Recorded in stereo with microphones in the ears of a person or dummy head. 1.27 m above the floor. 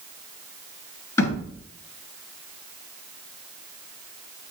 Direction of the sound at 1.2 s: 20° left (ahead or behind).